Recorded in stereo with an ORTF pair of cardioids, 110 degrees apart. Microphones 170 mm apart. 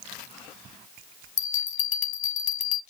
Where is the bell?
50° left, 0.9 m.